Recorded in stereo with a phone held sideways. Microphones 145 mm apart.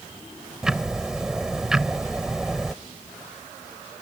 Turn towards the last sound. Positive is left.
turn(degrees=-5)  # may be behind; listen again after turning